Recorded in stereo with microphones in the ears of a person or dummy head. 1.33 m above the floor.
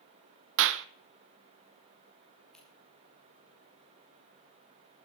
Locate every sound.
0.6 s a clap: 70° right (ahead or behind), 0.6 m
2.5 s scissors: 5° left (ahead or behind), 3 m